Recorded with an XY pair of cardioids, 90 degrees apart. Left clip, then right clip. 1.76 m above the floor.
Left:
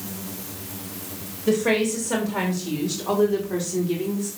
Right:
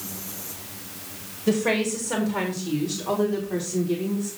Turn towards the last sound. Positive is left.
turn(degrees=25)